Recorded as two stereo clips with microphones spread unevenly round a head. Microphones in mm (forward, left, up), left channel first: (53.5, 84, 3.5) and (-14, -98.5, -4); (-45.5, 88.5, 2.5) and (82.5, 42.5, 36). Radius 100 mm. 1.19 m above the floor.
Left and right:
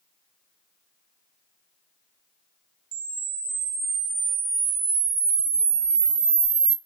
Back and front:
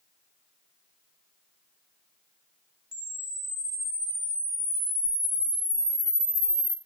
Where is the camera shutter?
70° right, 0.9 m.